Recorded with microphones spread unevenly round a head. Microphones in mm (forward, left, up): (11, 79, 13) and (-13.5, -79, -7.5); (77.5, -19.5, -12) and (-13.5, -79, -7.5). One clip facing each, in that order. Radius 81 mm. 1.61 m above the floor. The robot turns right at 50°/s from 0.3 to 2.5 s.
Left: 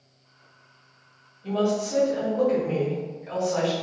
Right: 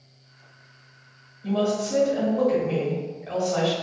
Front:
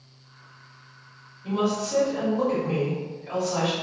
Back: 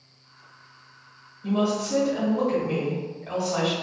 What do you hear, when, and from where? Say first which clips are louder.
1.4 s a woman speaking: even, back 1 dB; 175° right, 1.5 m; by 3.7 s 125° right, 1.5 m